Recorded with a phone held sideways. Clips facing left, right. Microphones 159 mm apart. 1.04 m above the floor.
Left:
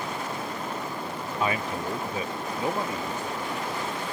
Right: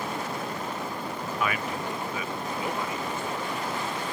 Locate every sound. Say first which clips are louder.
1.4 s a man speaking: left 3 dB; 30° left (ahead or behind); by 3.5 s 40° left (ahead or behind)